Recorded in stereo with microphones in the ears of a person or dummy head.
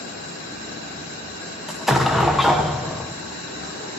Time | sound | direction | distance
1.7 | an explosion | centre (ahead or behind) | 0.9 m